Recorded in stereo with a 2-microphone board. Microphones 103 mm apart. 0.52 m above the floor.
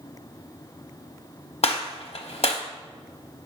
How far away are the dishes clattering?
I don't hear dishes clattering.